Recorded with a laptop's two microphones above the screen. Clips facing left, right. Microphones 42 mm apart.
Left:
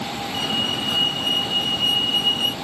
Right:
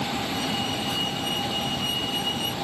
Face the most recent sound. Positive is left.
turn(degrees=45)  # may be behind; listen again after turning